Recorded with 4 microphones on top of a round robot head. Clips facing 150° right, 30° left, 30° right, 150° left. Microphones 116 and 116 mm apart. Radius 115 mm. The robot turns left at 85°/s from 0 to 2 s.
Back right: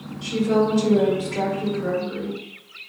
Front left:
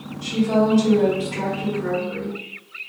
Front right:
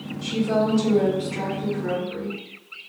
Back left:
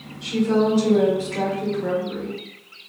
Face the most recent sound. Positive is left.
turn(degrees=125)